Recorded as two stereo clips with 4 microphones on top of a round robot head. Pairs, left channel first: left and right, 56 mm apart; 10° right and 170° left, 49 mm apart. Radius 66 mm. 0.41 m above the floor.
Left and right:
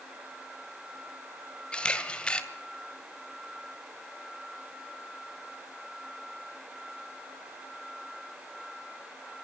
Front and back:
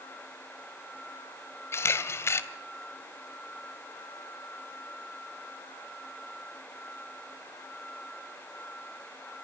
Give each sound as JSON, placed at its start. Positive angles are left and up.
{"t": 1.7, "sound": "a camera shutter", "azimuth_deg": 20, "distance_m": 2.0}